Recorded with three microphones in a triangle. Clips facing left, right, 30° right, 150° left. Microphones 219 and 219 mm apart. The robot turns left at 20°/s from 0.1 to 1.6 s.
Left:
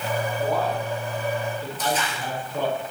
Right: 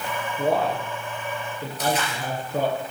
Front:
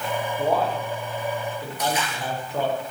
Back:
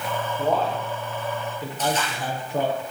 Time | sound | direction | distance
0.4 | a man speaking | 110° right | 5.5 m
1.8 | a splash | 105° right | 5.5 m